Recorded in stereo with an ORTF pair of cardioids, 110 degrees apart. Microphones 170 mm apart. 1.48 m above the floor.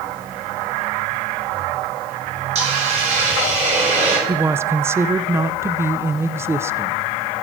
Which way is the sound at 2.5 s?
40° right.